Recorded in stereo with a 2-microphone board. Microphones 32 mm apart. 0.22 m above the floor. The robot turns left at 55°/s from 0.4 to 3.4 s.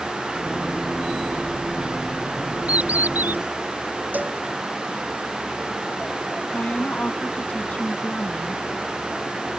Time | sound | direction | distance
2.7 | a bird | 45° right | ?
4.1 | a cowbell | 60° right (ahead or behind) | ?
6.5 | a woman speaking | 45° left (ahead or behind) | ?